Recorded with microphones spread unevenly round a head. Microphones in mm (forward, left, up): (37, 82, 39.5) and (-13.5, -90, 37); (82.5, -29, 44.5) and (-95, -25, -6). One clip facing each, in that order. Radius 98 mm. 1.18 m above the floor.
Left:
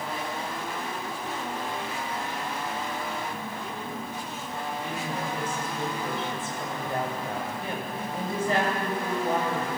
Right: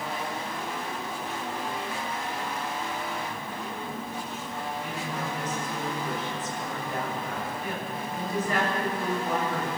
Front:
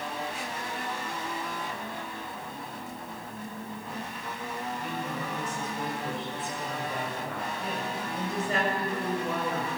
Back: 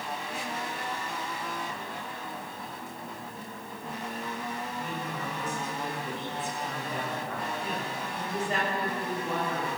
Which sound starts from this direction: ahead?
A woman speaking, at 4.8 s.